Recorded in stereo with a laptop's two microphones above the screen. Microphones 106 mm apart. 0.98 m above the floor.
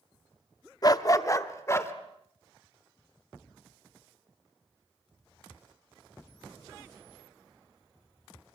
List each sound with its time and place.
0.8 s a dog barking: 40° left (ahead or behind), 0.7 m; by 1.9 s 25° left (ahead or behind), 1.3 m